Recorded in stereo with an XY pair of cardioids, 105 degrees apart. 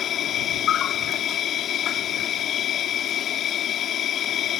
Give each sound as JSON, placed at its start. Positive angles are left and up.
{"t": 0.0, "sound": "an insect", "azimuth_deg": 70}